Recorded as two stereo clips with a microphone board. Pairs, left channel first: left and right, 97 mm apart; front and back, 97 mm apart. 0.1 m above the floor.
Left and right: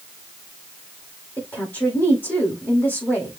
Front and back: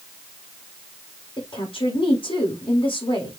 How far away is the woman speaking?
About 4 m.